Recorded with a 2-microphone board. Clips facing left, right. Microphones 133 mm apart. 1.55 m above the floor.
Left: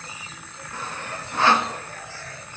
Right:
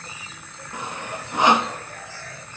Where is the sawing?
15° right (ahead or behind), 0.7 m.